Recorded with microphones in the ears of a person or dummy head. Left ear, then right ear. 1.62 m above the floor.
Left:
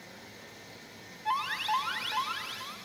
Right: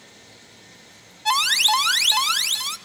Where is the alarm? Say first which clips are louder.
Right 12 dB; 55° right (ahead or behind), 0.8 m.